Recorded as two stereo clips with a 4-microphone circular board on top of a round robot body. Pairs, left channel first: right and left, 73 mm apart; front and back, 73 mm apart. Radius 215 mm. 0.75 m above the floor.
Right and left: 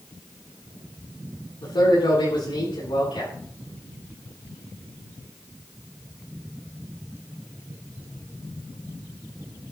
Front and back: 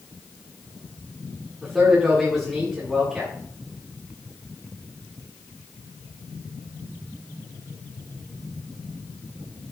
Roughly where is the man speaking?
Right.